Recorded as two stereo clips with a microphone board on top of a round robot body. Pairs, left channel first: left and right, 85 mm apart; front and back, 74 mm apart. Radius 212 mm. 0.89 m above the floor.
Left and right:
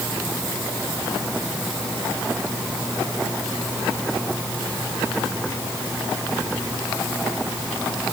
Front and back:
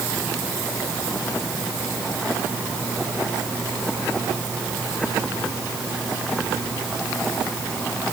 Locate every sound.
Only background noise.